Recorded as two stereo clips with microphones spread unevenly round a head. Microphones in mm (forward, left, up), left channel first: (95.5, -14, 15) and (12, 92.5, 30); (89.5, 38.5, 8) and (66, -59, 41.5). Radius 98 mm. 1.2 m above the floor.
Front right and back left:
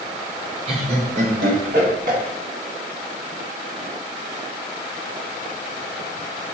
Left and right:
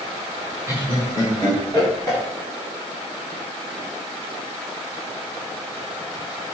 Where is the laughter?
Straight behind, 1.0 m; by 2.2 s 175° left, 2.5 m.